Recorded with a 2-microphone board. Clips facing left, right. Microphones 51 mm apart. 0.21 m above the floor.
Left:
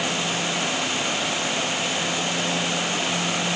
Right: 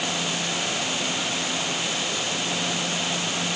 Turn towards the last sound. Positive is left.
No sound to turn to.